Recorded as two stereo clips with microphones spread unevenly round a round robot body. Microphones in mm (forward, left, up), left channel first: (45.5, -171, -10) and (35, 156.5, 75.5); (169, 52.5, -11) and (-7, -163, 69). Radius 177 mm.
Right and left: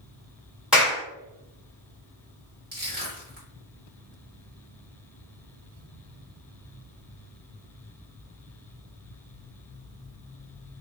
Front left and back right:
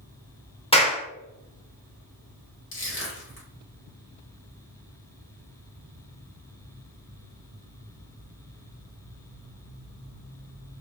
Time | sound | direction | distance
0.7 | a clap | 5° right | 1.4 m
2.7 | crushing | 25° left | 1.8 m